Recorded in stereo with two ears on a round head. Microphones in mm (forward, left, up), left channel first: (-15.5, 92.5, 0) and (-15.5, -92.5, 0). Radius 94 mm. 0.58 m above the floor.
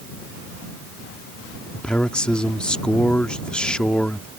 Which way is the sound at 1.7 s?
5° left (ahead or behind).